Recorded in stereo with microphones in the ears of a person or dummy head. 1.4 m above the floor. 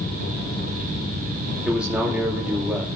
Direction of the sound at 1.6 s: 5° right (ahead or behind).